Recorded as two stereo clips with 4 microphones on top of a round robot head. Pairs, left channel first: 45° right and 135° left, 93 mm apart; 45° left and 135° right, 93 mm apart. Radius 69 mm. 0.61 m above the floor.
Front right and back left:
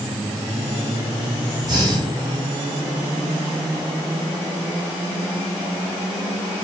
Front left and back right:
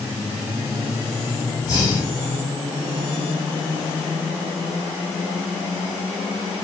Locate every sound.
1.6 s breathing: 95° left, 2.0 m